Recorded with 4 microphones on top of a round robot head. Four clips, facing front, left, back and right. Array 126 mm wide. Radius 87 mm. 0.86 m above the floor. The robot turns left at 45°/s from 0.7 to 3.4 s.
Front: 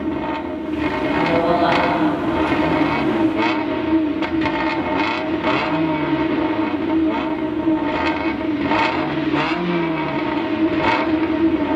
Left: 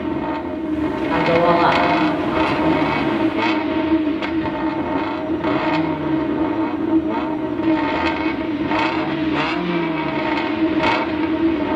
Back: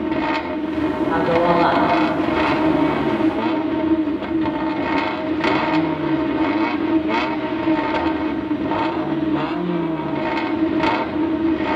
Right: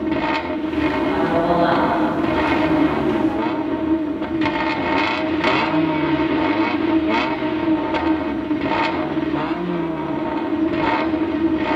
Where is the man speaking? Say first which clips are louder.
Left 6 dB, back 1 dB; 160° left, 3 m; by 3.1 s 70° left, 3 m.